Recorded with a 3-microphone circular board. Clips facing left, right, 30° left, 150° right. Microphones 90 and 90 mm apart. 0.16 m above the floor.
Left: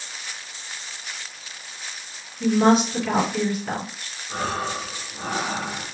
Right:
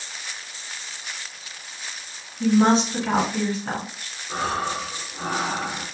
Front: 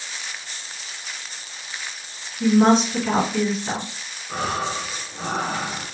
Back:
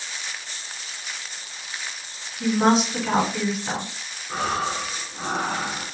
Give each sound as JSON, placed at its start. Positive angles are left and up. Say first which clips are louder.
{"t": 2.4, "sound": "a woman speaking", "louder": "even, front 3 dB", "azimuth_deg": -65, "distance_m": 1.8}
{"t": 4.3, "sound": "breathing", "louder": "right 1 dB, even", "azimuth_deg": -45, "distance_m": 1.8}